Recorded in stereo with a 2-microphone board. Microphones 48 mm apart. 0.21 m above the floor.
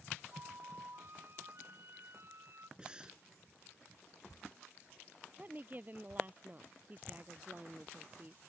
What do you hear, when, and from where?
0.3 s a flute: 50° right (ahead or behind)
2.8 s breathing: 20° right (ahead or behind)
5.4 s a woman speaking: 35° right (ahead or behind)